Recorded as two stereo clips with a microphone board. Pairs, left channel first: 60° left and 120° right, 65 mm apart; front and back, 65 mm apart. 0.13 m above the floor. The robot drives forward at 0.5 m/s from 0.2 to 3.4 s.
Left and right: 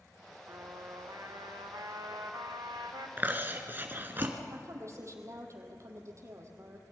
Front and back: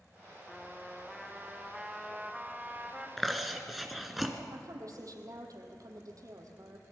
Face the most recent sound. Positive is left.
turn(degrees=-160)